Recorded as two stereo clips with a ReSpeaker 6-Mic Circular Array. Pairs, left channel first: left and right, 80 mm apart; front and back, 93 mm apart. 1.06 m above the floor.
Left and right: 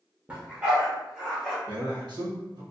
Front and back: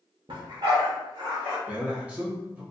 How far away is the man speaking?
About 1.3 m.